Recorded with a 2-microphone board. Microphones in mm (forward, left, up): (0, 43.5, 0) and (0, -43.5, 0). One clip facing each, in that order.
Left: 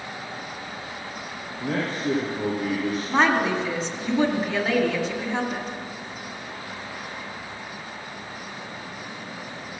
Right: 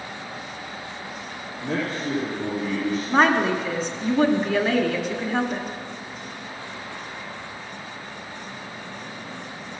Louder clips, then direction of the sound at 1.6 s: Left 1 dB; 75° left (ahead or behind).